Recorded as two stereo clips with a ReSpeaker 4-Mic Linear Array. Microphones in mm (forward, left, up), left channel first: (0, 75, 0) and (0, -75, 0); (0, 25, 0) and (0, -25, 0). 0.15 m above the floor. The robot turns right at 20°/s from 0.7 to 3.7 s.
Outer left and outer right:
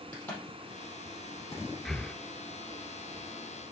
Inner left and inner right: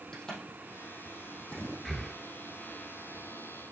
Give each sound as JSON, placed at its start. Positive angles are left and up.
{"t": 0.1, "sound": "a crack", "side_deg": 10, "distance_m": 4.0}
{"t": 1.9, "sound": "breathing", "side_deg": 0, "distance_m": 0.5}